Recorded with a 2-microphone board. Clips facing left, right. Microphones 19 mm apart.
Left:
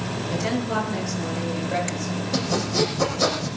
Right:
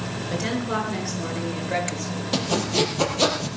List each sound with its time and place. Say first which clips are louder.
0.3 s a woman speaking: left 1 dB; 30° right (ahead or behind), 6.5 m; by 2.2 s 50° right (ahead or behind), 7.5 m
2.3 s sawing: right 1 dB; 45° right (ahead or behind), 4 m